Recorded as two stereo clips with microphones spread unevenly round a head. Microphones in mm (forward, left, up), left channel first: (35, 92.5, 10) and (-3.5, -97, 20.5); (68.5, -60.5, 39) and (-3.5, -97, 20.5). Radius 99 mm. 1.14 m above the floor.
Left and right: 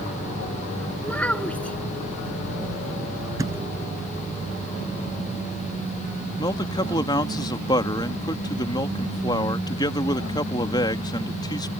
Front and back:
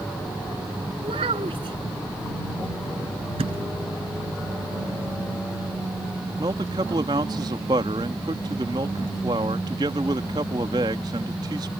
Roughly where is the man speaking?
Behind left.